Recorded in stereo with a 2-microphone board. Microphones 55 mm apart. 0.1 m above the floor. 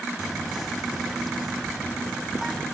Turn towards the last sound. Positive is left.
turn(degrees=5)  # may be behind; listen again after turning